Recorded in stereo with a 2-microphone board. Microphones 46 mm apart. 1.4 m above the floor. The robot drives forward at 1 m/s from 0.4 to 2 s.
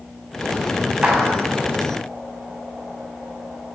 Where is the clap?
30° right (ahead or behind), 9.5 m.